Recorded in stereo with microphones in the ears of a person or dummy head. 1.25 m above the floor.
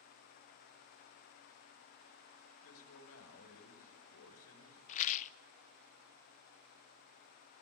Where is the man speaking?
75° left (ahead or behind), 5 m.